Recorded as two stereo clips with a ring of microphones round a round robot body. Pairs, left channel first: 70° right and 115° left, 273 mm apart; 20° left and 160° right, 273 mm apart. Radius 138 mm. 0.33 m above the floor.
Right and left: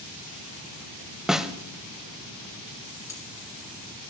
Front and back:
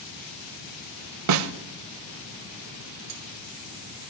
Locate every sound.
1.3 s a snare drum: 160° right, 0.7 m
3.1 s cutlery clinking: 145° right, 3.5 m